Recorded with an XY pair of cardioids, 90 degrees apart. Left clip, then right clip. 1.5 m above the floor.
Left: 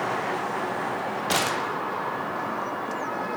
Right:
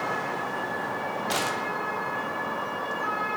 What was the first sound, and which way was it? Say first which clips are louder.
A gunshot: left 4 dB; 35° left.